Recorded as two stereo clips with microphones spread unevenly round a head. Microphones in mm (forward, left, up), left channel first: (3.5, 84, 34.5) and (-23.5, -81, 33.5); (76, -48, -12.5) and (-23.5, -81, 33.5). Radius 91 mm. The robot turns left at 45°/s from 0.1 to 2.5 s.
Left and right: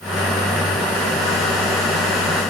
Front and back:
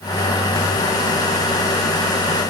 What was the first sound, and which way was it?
Only background noise.